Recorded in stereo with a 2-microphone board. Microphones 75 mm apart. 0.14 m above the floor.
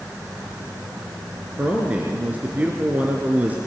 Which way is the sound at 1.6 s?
20° right (ahead or behind).